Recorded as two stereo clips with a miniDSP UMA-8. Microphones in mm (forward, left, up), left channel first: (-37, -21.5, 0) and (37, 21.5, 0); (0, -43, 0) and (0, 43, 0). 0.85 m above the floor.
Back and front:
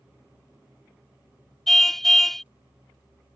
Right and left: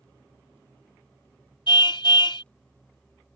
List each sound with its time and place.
1.7 s a car horn: 65° right